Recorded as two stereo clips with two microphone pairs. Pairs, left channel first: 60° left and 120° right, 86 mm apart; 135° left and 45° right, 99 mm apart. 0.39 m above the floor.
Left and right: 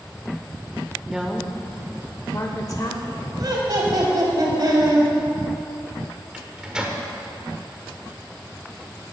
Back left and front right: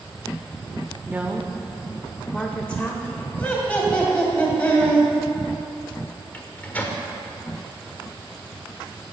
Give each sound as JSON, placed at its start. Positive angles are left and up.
{"t": 1.1, "sound": "a woman speaking", "azimuth_deg": -60, "distance_m": 0.8}
{"t": 3.4, "sound": "laughter", "azimuth_deg": -150, "distance_m": 2.5}
{"t": 6.3, "sound": "a microwave", "azimuth_deg": 175, "distance_m": 1.2}